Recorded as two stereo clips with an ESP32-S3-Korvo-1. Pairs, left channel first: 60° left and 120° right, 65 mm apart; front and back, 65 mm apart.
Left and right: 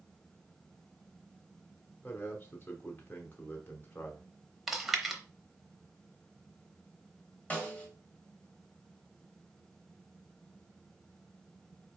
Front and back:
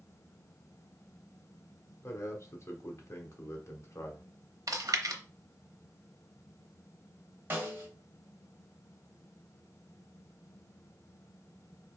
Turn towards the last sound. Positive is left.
turn(degrees=125)